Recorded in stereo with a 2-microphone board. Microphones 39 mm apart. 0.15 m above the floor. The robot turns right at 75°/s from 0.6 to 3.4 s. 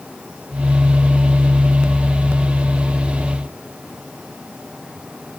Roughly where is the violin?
No violin in this recording.